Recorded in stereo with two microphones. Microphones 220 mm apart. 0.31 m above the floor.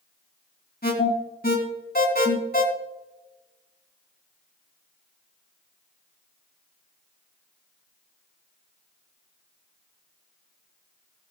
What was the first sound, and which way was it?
An alarm, 45° left (ahead or behind).